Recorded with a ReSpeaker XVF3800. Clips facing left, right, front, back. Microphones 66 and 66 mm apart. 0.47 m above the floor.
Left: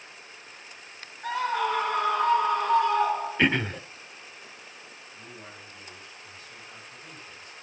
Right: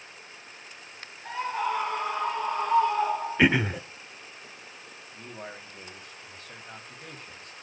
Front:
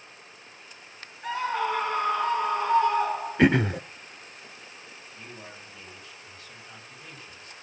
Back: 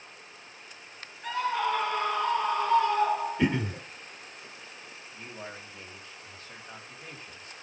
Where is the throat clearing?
10° right, 0.6 m.